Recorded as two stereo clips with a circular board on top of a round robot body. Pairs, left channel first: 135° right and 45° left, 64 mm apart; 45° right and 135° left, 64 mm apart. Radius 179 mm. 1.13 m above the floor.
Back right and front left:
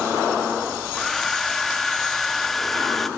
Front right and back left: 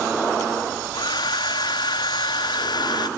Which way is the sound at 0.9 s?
50° right.